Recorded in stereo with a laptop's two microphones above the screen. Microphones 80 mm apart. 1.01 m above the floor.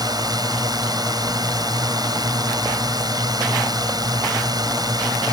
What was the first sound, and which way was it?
A drone, 55° right (ahead or behind).